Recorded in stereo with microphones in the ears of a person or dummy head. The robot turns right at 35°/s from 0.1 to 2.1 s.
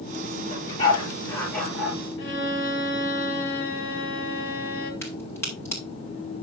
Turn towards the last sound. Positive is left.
turn(degrees=15)  # may be behind; listen again after turning